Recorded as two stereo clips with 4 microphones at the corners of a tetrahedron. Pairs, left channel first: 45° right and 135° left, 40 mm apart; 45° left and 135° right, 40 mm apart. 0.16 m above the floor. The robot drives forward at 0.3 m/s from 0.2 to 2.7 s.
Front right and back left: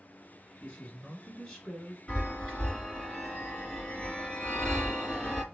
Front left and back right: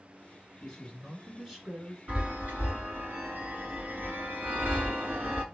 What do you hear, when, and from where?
0.6 s a man speaking: 50° right, 1.2 m; by 2.0 s 105° right, 1.1 m
2.1 s a chime: 105° right, 2.5 m; by 5.4 s 110° right, 2.5 m